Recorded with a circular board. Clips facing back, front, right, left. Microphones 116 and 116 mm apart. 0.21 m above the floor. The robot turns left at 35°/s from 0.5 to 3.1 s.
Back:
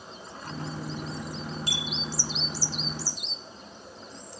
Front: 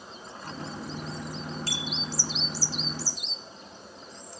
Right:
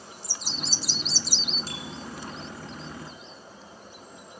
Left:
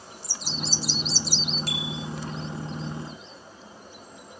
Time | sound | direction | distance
1.7 | a bicycle bell | 110° left | 4 m